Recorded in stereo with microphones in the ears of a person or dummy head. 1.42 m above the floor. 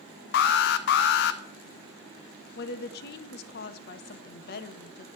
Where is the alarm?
50° left (ahead or behind), 0.6 m.